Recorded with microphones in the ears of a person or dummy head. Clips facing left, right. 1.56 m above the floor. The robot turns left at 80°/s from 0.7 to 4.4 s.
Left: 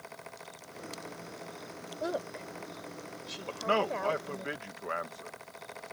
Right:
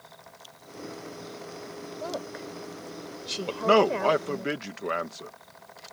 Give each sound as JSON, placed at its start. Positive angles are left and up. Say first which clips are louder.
{"t": 2.0, "sound": "a woman speaking", "louder": "left 1 dB", "side_deg": 20}
{"t": 3.5, "sound": "a man speaking", "louder": "right 9 dB", "azimuth_deg": -55}